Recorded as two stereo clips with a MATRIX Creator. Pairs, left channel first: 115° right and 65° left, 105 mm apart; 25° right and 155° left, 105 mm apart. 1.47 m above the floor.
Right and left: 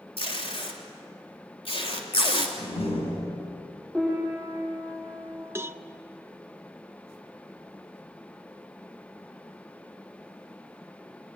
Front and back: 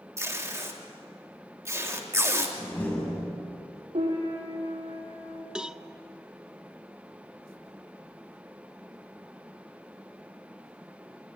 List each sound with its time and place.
0.2 s tape being pulled: 140° right, 3.5 m
2.6 s a door slam: 100° right, 7 m
3.9 s a piano: 160° left, 8 m
5.5 s a cowbell: 85° left, 0.7 m